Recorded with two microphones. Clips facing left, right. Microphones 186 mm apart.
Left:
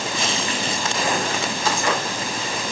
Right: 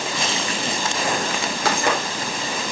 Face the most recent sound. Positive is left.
turn(degrees=-70)  # may be behind; listen again after turning